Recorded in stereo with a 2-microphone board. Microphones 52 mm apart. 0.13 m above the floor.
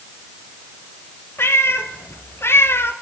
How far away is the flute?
I don't hear a flute.